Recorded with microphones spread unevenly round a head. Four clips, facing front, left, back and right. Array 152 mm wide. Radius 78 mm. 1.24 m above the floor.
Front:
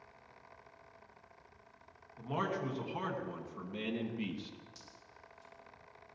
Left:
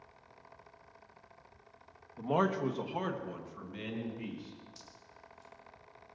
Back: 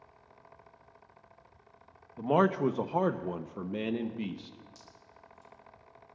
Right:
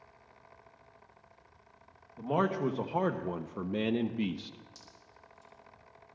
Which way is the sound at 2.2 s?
175° left.